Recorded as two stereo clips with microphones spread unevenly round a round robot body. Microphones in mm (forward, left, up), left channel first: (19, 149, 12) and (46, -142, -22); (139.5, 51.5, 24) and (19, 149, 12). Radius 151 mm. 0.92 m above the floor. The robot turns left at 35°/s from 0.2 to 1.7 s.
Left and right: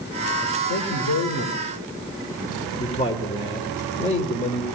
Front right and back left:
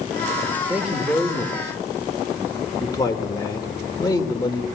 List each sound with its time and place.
0.7 s a man speaking: 60° left, 2.5 m; by 4.7 s 25° left, 2.5 m